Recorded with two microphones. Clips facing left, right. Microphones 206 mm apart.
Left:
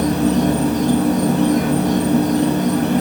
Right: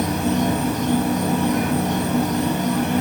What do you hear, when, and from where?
0.0 s an insect: 35° left (ahead or behind), 3 m